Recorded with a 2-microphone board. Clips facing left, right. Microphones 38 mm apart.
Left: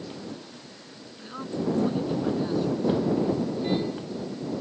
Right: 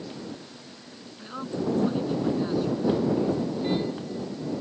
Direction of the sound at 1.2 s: 5° right (ahead or behind).